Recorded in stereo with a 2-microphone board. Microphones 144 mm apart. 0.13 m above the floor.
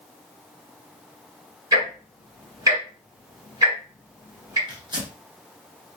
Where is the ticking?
25° right (ahead or behind), 1.9 m.